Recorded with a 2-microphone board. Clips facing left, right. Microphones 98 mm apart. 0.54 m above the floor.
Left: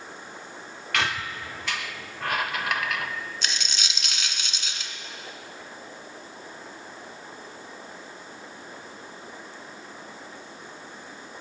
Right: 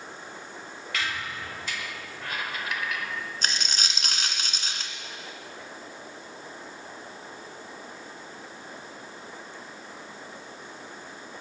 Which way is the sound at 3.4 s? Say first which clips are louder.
Right 2 dB; 45° right (ahead or behind).